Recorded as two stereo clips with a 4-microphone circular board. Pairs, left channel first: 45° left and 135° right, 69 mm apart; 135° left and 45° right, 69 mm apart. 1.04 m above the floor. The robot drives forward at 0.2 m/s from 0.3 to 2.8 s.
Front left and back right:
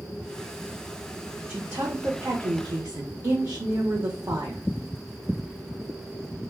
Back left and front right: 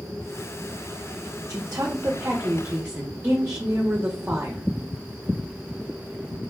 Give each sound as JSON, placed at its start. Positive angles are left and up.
{"t": 1.5, "sound": "a woman speaking", "azimuth_deg": -80, "distance_m": 0.5}